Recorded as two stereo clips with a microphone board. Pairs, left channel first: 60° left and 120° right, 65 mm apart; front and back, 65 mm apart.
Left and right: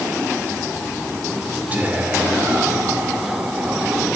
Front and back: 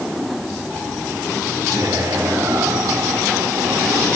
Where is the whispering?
175° left, 2.5 m.